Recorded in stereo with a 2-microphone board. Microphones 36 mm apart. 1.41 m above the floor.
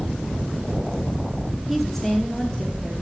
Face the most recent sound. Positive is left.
turn(degrees=25)  # may be behind; listen again after turning